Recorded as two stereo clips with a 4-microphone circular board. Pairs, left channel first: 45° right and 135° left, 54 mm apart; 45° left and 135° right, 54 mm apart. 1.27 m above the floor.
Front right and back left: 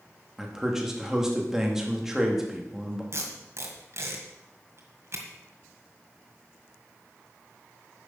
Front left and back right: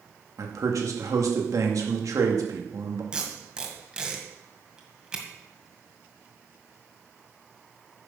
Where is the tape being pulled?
155° left, 1.9 m.